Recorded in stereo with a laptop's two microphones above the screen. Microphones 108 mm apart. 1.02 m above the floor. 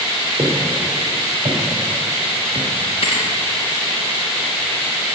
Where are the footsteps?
45° right (ahead or behind), 3.5 m; by 2.7 s 65° right (ahead or behind), 3.5 m.